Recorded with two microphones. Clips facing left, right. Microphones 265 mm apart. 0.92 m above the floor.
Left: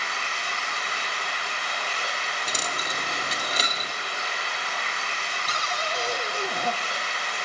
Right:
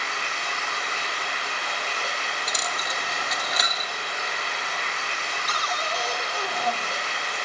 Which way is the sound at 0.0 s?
40° left (ahead or behind).